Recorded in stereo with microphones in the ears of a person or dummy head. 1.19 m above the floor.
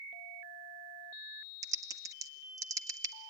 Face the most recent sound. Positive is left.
turn(degrees=-15)  # may be behind; listen again after turning